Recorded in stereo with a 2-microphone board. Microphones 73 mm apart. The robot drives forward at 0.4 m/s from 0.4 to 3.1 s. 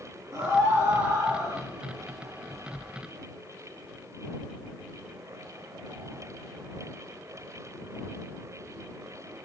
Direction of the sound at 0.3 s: 35° right (ahead or behind).